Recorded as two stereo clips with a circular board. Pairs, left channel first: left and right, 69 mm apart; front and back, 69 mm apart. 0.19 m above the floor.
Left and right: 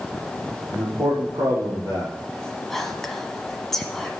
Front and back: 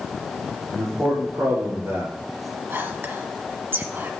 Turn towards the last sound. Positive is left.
turn(degrees=170)